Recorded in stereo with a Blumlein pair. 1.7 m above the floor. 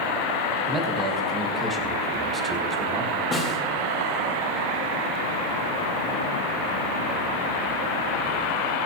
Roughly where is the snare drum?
Ahead.